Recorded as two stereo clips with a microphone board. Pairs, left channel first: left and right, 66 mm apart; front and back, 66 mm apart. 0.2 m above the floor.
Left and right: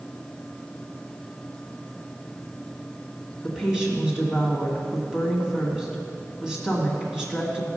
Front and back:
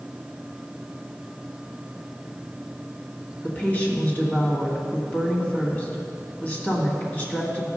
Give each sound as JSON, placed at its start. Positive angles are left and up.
{"t": 3.4, "sound": "a woman speaking", "azimuth_deg": -20, "distance_m": 1.6}